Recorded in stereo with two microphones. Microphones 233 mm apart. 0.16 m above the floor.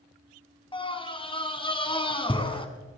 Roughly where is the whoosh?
I don't hear a whoosh.